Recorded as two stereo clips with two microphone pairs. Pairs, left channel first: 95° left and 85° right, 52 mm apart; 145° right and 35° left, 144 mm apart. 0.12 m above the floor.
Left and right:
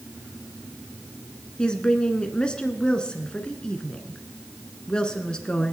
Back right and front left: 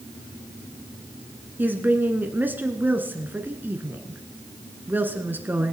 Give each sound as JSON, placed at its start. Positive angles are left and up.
{"t": 1.6, "sound": "a woman speaking", "azimuth_deg": 70, "distance_m": 1.3}